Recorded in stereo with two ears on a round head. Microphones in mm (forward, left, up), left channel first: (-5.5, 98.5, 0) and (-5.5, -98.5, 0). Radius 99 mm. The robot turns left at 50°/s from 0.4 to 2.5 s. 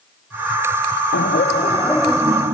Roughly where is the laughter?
Ahead left.